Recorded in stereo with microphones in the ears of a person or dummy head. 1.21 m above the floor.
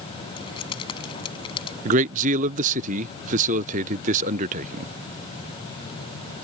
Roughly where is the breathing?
No breathing in this recording.